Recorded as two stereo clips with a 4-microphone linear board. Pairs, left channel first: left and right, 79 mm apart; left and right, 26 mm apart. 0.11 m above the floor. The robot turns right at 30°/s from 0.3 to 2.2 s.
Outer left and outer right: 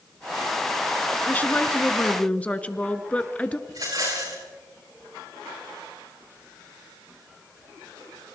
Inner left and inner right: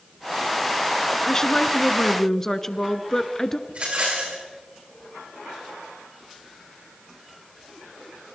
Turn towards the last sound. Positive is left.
turn(degrees=-55)  # may be behind; listen again after turning